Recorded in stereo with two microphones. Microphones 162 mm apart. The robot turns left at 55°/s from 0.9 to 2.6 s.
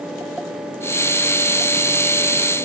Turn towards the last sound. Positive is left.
No sound to turn to.